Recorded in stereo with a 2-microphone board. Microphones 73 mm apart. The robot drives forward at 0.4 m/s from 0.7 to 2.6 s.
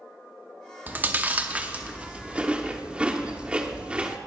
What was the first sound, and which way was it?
Chewing, 25° right (ahead or behind).